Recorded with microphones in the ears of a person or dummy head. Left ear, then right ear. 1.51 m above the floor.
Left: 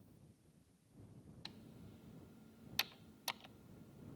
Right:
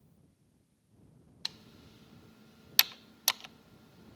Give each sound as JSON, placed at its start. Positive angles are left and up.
{"t": 1.4, "sound": "typing on a keyboard", "side_deg": -50}